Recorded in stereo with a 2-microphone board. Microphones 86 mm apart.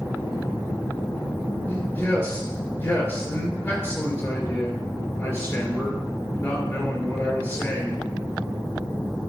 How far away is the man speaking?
About 4 m.